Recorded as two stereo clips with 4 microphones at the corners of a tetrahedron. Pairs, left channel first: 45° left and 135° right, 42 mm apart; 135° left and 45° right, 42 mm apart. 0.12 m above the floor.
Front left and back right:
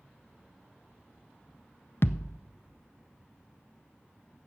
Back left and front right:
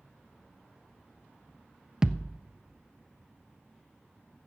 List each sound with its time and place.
2.0 s a thud: 30° left, 0.5 m